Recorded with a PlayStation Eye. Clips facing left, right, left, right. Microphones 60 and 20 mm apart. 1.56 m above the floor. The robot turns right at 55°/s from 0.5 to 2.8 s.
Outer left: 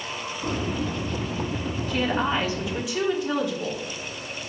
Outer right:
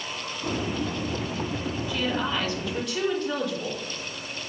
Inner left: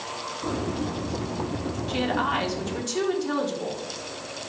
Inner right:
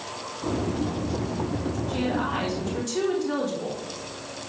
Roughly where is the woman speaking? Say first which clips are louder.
Outer left 4 dB, inner left 3 dB; behind left.